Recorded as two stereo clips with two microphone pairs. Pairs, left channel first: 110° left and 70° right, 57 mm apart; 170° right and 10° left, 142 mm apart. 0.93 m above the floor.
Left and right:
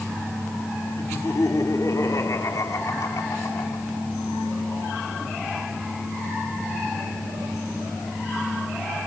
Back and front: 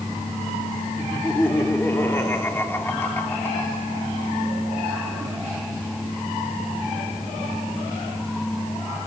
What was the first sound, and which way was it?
Laughter, 115° left.